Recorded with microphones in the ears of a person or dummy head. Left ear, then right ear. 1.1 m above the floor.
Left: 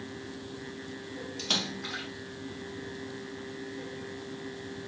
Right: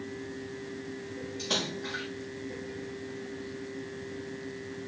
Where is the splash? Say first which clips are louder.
Left 1 dB; 60° left (ahead or behind), 5 m.